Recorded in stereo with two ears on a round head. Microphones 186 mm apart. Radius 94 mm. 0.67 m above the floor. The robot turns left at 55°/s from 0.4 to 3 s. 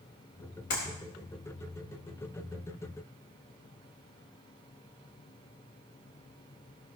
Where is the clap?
65° left (ahead or behind), 4 m; by 0.9 s 55° left (ahead or behind), 4 m.